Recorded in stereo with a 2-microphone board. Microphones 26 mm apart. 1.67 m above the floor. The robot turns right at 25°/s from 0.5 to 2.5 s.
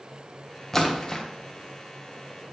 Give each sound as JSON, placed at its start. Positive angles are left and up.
{"t": 0.7, "sound": "a splash", "side_deg": 15, "distance_m": 1.1}